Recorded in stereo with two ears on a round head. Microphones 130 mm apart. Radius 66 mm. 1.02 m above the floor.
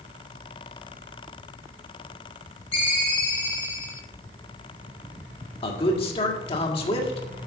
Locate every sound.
2.7 s a ringtone: 40° left (ahead or behind), 3.5 m
5.6 s a man speaking: 40° left (ahead or behind), 1.8 m